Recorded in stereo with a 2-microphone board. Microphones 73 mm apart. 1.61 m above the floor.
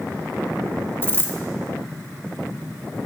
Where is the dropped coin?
30° left (ahead or behind), 1.2 m.